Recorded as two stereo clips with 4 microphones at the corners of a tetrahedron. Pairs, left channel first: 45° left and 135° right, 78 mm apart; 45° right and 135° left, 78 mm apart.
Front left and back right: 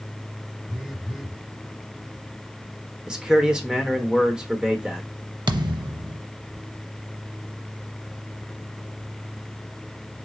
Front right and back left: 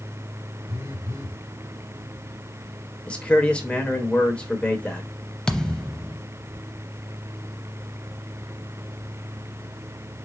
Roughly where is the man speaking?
Right.